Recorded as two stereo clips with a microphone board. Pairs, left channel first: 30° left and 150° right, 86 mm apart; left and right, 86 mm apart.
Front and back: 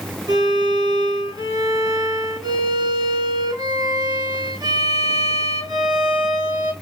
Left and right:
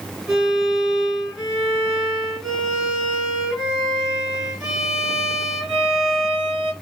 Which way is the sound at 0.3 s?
165° right.